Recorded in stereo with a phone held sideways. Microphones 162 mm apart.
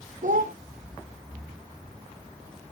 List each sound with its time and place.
0.2 s a child speaking: 60° right (ahead or behind), 0.7 m